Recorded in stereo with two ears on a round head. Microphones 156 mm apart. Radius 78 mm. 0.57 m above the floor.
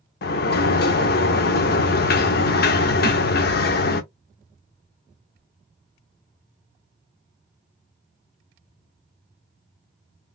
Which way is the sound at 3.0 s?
10° left (ahead or behind).